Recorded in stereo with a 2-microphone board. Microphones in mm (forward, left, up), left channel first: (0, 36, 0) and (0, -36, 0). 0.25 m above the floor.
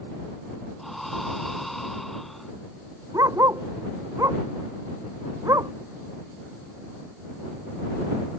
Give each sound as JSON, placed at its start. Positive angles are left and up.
{"t": 0.8, "sound": "breathing", "side_deg": 0}
{"t": 3.1, "sound": "a dog barking", "side_deg": -55}